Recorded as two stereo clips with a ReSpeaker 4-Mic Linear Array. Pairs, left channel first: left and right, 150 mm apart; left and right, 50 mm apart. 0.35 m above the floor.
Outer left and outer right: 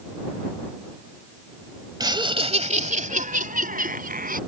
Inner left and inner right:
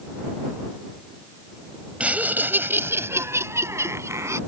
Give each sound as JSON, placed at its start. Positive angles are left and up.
{"t": 2.0, "sound": "laughter", "side_deg": -25}